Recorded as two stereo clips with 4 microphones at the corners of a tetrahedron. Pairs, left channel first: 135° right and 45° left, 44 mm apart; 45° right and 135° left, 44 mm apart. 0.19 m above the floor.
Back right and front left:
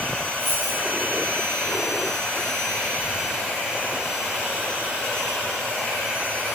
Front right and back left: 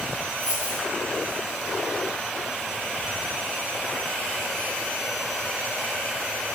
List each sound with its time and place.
0.4 s a dropped coin: 5° left, 5.5 m